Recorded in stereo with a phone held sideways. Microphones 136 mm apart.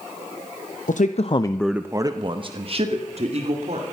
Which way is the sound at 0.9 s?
70° left (ahead or behind).